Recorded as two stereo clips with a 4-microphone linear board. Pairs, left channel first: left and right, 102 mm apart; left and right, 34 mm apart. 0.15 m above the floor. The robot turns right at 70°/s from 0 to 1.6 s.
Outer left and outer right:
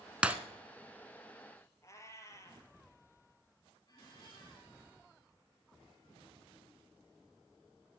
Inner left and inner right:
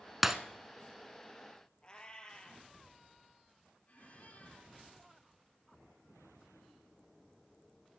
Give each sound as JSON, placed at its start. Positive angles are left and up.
{"t": 0.2, "sound": "breaking glass", "side_deg": -10, "distance_m": 0.9}
{"t": 1.8, "sound": "a cat meowing", "side_deg": 30, "distance_m": 2.0}
{"t": 3.9, "sound": "a squeak", "side_deg": 40, "distance_m": 2.5}